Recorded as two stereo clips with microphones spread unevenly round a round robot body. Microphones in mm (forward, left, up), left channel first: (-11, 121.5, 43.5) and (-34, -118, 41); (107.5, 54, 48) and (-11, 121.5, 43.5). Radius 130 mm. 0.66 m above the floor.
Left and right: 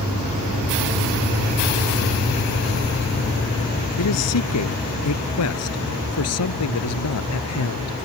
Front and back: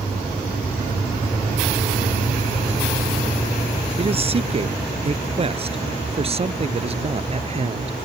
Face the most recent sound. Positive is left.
turn(degrees=110)